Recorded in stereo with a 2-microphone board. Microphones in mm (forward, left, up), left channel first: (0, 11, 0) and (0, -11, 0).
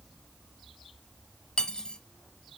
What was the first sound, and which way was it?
Cutlery clinking, 40° left (ahead or behind).